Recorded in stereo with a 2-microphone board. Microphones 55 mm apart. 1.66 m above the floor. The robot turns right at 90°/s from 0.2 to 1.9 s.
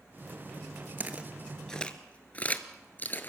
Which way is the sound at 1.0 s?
35° right (ahead or behind).